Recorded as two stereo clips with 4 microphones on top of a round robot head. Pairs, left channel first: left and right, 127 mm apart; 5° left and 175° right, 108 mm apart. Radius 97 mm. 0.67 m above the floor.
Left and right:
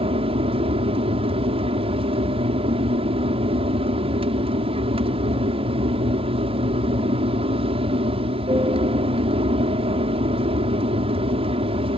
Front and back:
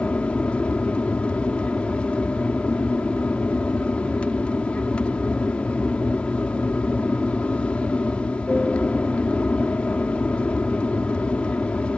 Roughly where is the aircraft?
Right.